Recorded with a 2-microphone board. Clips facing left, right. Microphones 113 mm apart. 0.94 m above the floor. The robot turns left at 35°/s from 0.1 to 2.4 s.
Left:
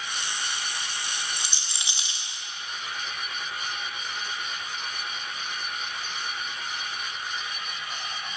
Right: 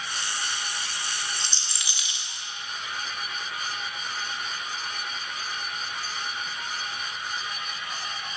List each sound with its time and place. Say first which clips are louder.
1.4 s a rattle: even; 10° left (ahead or behind), 1.5 m; by 2.3 s 40° left (ahead or behind), 1.5 m